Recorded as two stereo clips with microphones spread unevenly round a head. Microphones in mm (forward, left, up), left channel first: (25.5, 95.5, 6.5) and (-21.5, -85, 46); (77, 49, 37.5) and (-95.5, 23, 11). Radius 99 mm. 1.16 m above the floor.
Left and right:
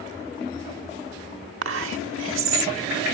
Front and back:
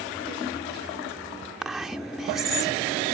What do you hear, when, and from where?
1.6 s whispering: 80° right